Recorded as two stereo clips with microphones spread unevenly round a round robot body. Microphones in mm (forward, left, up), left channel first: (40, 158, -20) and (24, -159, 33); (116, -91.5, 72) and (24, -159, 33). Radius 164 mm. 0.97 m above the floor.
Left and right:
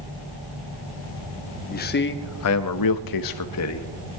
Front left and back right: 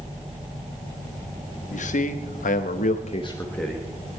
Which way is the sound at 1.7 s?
25° left.